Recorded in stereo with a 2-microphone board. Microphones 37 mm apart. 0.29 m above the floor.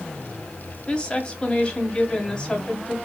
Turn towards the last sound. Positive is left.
turn(degrees=25)  # may be behind; listen again after turning